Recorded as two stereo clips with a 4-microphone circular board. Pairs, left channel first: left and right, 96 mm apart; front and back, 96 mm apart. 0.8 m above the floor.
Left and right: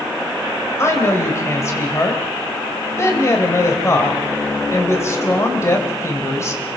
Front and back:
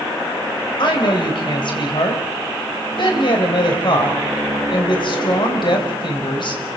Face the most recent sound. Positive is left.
turn(degrees=30)